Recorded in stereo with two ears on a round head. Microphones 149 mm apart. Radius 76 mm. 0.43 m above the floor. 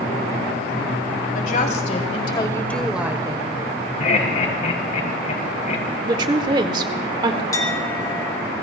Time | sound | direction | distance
1.4 | a woman speaking | 50° left (ahead or behind) | 2.5 m
4.0 | laughter | 45° left (ahead or behind) | 2.5 m
6.0 | a woman speaking | 25° right (ahead or behind) | 1.1 m
7.5 | a clink | 20° left (ahead or behind) | 2 m